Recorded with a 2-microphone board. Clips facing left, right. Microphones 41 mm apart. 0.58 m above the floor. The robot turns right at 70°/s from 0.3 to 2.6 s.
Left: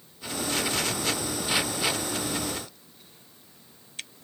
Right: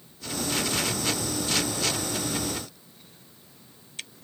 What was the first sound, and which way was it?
Only background noise.